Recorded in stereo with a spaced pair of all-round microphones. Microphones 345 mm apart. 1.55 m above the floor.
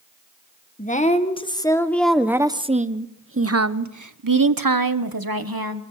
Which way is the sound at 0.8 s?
25° left (ahead or behind).